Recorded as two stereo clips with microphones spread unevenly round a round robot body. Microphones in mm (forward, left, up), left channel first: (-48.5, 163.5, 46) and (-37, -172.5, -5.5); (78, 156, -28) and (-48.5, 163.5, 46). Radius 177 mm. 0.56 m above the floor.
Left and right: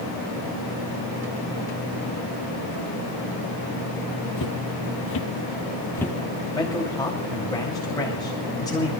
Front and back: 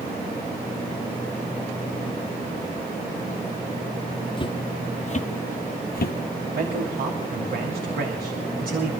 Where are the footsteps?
65° left, 1.3 m; by 6.2 s 10° left, 0.9 m.